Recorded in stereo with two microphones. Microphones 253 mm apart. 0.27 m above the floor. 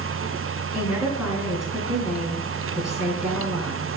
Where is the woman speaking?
Centre (ahead or behind), 3.5 m.